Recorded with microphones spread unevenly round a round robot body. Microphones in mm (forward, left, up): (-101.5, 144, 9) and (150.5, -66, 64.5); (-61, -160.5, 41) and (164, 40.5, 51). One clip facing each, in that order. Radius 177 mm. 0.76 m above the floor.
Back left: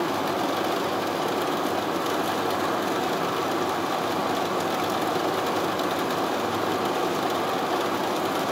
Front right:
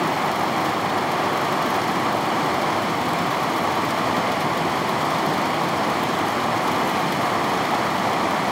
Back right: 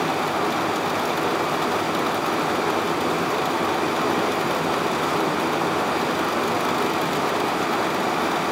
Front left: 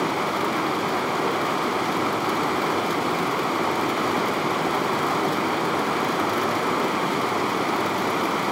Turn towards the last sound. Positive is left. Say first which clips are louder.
# front right 1 dB, back right 1 dB
turn(degrees=-40)